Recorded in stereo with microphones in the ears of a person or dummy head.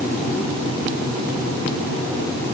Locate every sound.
Only background noise.